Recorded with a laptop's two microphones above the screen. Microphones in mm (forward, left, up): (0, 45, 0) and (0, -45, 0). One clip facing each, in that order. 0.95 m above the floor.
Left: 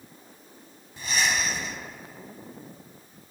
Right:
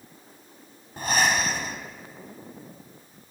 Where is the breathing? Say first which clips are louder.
Right 4 dB; 55° right (ahead or behind), 1.6 m.